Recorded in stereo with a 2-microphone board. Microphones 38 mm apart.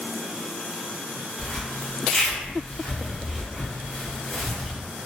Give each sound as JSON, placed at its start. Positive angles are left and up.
{"t": 1.4, "sound": "a zipper", "side_deg": 10, "distance_m": 1.0}